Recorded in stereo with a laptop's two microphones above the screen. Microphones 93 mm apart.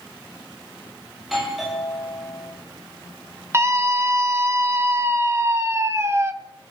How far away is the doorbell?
About 3.5 m.